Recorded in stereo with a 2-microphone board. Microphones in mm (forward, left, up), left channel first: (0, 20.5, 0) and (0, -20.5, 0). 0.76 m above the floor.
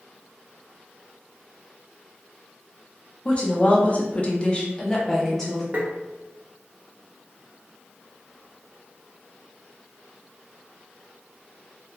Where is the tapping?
45° right (ahead or behind), 0.5 m.